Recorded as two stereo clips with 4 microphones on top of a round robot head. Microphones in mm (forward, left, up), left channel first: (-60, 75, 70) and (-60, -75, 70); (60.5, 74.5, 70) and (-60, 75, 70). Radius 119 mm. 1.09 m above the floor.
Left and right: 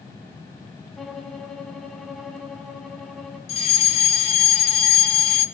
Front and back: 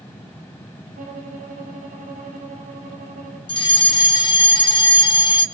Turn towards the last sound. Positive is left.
turn(degrees=45)